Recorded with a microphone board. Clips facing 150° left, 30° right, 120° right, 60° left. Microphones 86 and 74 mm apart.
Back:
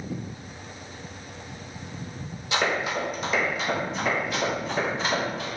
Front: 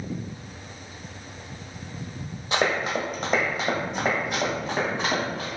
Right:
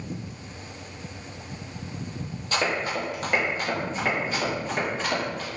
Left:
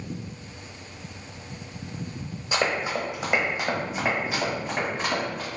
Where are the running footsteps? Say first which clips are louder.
Front 1 dB, left 1 dB; 10° right, 1.0 m; by 5.5 s 20° right, 2.5 m.